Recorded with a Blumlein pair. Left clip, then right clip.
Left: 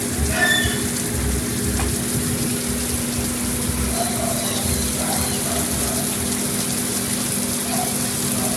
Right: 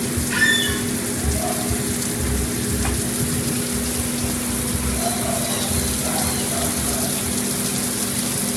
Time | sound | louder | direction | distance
0.3 | a squeak | right 1 dB | 20° right | 5 m